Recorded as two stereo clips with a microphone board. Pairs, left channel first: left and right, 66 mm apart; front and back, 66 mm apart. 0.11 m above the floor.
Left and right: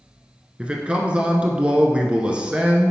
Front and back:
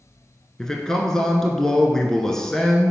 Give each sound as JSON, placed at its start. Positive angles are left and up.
{"t": 0.6, "sound": "a man speaking", "azimuth_deg": -65, "distance_m": 1.1}